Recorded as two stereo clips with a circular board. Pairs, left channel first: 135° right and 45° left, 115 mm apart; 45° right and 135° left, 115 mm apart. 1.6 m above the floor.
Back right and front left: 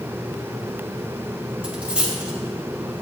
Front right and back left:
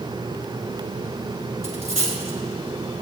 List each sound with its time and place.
1.6 s a dropped coin: 125° left, 4 m